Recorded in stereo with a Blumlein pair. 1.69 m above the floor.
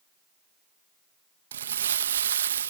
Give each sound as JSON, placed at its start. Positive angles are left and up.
{"t": 1.5, "sound": "crumpling", "azimuth_deg": -65}